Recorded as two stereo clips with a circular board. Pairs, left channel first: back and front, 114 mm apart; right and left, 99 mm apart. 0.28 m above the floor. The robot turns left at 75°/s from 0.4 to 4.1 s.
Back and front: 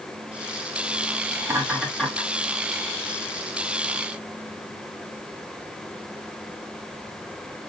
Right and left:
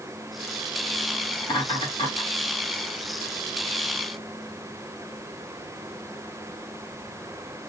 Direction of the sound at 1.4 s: 55° right.